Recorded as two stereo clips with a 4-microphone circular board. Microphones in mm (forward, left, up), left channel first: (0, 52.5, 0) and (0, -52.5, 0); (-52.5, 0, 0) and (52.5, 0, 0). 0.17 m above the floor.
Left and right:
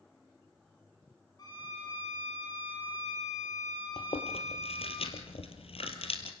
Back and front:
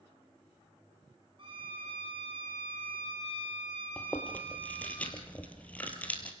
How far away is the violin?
About 9.5 m.